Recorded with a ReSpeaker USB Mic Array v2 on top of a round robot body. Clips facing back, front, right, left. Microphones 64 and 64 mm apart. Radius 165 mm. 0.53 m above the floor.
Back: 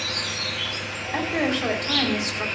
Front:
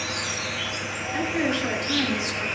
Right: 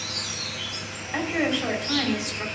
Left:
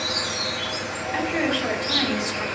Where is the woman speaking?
175° right, 2.5 m.